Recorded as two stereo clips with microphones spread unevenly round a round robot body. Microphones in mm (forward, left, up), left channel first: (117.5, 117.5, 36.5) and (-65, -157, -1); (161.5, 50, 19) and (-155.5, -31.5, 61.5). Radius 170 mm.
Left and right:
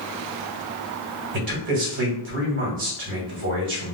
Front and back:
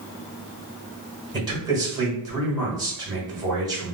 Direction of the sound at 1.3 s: 85° right.